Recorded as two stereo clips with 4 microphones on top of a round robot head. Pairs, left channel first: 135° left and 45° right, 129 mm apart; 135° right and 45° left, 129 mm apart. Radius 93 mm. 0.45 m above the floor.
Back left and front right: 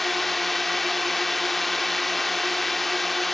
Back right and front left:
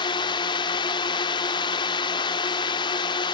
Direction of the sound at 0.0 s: 135° right.